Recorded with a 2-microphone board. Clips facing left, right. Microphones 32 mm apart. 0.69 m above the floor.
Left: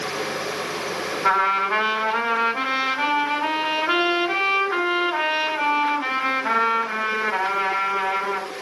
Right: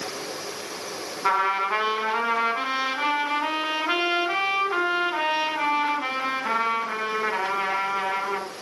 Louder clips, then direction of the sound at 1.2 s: Left 3 dB; centre (ahead or behind).